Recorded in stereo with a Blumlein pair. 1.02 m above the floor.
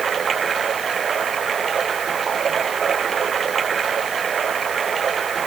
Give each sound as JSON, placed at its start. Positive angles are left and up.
{"t": 0.0, "sound": "running water", "azimuth_deg": -20}